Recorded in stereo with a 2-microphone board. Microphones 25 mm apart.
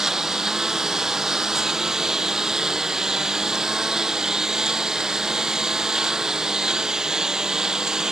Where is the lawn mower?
20° right (ahead or behind); by 8.1 s 25° right (ahead or behind).